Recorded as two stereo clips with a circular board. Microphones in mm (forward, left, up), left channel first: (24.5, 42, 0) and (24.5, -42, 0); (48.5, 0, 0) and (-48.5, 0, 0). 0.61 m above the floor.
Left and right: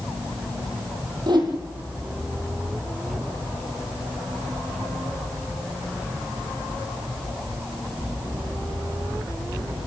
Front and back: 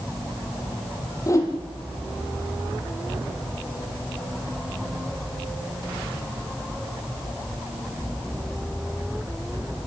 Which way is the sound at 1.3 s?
55° right.